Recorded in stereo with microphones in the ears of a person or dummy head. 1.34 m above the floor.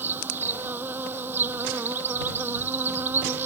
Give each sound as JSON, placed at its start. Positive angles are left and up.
{"t": 0.0, "sound": "an insect", "side_deg": -10}